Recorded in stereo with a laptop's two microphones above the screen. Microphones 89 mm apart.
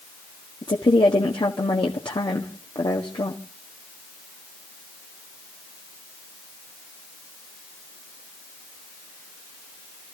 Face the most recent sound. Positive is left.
turn(degrees=70)  # may be behind; listen again after turning